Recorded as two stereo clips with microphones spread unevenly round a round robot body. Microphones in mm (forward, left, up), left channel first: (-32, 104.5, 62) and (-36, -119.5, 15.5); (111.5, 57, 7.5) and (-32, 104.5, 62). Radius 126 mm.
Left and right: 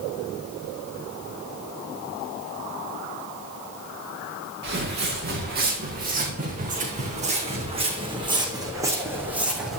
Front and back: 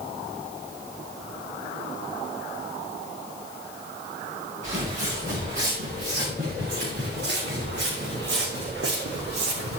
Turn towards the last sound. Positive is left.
turn(degrees=180)